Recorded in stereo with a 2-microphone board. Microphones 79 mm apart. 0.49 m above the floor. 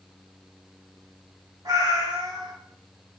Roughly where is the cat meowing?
Right.